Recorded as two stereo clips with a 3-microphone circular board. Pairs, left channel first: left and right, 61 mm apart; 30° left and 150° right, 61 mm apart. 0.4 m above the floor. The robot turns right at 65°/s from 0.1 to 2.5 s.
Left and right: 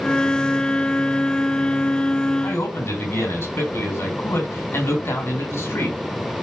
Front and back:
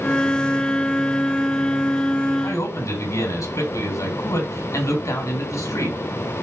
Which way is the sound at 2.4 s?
40° left.